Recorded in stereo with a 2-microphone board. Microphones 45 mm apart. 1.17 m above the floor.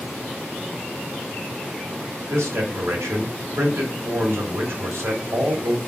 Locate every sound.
2.3 s a man speaking: 75° right (ahead or behind), 3 m